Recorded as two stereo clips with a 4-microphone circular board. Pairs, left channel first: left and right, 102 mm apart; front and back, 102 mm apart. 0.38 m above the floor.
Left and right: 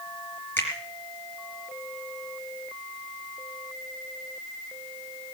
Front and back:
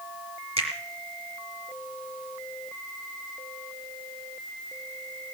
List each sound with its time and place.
0.6 s a finger snap: 160° left, 4.5 m